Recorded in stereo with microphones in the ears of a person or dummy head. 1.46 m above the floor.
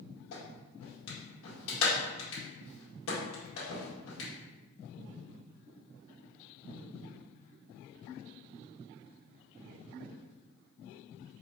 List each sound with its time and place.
0.3 s a clap: 80° left, 1.9 m